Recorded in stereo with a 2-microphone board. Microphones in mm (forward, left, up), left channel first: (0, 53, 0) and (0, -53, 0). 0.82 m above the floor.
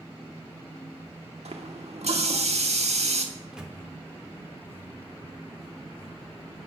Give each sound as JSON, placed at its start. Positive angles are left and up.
{"t": 1.4, "sound": "a running tap", "side_deg": -85, "distance_m": 1.0}
{"t": 3.4, "sound": "a microwave", "side_deg": -5, "distance_m": 0.9}